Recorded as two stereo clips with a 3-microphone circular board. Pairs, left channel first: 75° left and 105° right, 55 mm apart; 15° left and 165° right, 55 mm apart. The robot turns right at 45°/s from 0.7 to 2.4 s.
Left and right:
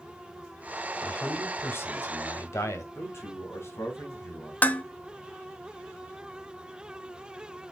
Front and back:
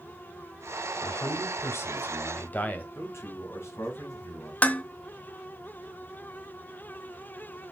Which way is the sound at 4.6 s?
45° left.